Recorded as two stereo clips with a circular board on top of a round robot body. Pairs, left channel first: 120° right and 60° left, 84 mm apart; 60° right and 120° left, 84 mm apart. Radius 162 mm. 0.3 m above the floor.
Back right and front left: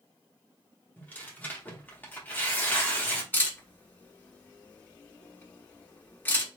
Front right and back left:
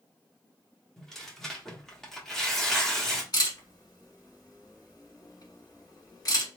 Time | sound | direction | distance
1.0 | tearing paper | 135° right | 1.1 m
3.3 | a camera shutter | 65° right | 1.7 m